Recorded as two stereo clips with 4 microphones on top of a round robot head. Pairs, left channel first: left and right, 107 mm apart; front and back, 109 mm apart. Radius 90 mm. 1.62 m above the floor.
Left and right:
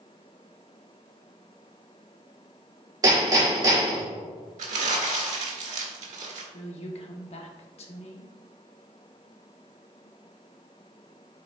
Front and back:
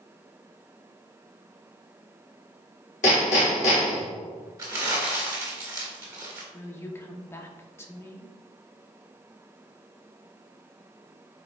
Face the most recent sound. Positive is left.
turn(degrees=65)